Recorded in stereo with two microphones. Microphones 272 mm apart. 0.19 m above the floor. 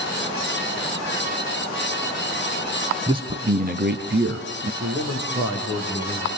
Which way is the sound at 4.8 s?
40° right (ahead or behind).